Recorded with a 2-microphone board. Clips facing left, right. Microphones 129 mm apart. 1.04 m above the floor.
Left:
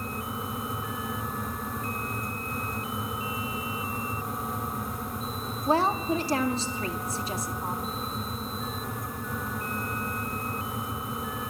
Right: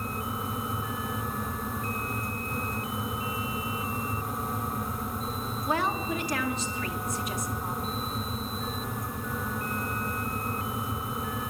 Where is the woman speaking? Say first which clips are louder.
Left 5 dB; 30° left (ahead or behind), 1.8 m.